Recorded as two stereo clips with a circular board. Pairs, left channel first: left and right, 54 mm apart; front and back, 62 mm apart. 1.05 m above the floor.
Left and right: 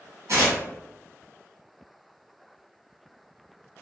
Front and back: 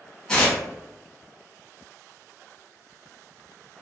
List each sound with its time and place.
0.3 s tearing paper: 80° right, 1.4 m